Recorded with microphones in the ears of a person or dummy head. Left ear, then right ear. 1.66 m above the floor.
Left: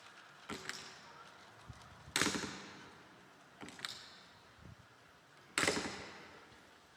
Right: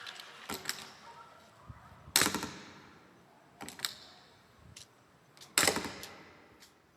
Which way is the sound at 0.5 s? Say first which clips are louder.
Right 5 dB; 10° right (ahead or behind).